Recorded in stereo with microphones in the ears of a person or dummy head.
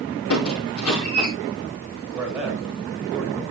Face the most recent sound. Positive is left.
turn(degrees=-10)  # may be behind; listen again after turning